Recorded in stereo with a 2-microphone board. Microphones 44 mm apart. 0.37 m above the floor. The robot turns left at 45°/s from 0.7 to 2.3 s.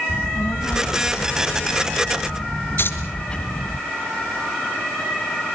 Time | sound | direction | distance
0.1 | a child speaking | 70° left (ahead or behind) | 1.5 m
2.8 | keys jangling | 60° left (ahead or behind) | 3.5 m